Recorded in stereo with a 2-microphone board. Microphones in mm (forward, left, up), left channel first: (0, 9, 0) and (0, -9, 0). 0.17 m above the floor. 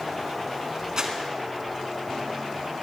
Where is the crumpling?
45° right (ahead or behind), 1.6 m.